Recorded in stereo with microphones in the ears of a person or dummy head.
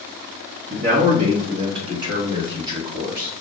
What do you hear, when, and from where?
0.7 s a man speaking: 55° right (ahead or behind), 0.8 m; by 3.3 s 20° right (ahead or behind), 2.5 m